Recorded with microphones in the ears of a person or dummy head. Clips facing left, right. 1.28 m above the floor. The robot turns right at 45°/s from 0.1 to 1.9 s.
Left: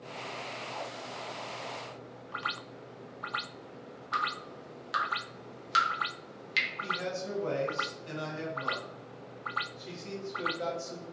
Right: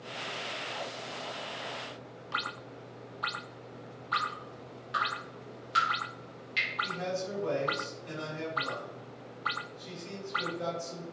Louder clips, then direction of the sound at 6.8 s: Right 2 dB; 50° left (ahead or behind).